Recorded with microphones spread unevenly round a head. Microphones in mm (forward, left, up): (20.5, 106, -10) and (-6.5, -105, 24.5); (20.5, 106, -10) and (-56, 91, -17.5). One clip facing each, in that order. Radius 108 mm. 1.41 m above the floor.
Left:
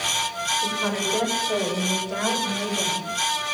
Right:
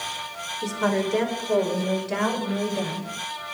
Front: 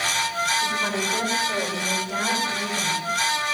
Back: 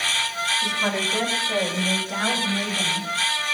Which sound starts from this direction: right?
A woman speaking, at 0.6 s.